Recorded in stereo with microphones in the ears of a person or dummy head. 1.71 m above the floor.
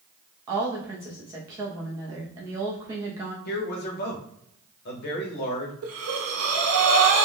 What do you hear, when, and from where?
0.5 s a woman speaking: 20° right (ahead or behind), 0.6 m
3.5 s a man speaking: 50° left (ahead or behind), 0.8 m
5.8 s breathing: 85° right, 0.6 m